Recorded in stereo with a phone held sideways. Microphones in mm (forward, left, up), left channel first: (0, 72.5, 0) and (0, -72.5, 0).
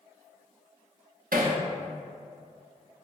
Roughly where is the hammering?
Right.